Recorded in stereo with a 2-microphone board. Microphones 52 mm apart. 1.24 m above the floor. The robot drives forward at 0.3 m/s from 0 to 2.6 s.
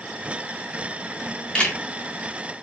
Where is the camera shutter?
20° left (ahead or behind), 1.4 m; by 1.8 s 15° left (ahead or behind), 1.4 m.